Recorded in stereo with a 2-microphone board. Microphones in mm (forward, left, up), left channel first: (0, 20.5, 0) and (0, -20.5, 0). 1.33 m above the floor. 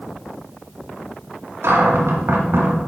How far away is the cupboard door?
About 1.8 m.